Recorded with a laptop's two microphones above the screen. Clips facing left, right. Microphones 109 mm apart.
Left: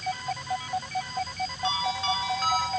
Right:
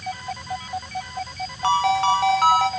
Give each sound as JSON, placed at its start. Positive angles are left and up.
{"t": 1.6, "sound": "a ringtone", "side_deg": -70, "distance_m": 1.7}